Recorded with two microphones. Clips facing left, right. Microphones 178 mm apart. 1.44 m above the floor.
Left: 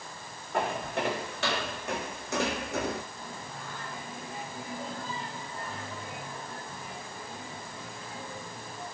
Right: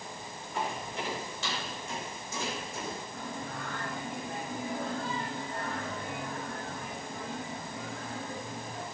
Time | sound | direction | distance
0.5 | footsteps | 65° left (ahead or behind) | 7 m
3.1 | singing | 65° right (ahead or behind) | 7.5 m